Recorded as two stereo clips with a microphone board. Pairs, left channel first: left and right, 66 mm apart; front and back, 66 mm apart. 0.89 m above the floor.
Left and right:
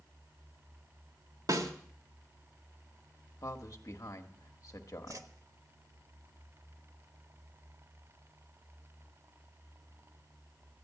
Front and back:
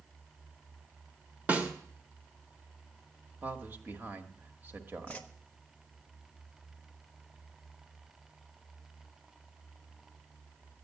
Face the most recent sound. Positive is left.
turn(degrees=-70)